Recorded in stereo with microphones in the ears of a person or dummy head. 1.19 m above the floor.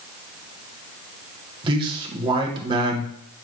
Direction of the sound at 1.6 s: 30° right (ahead or behind).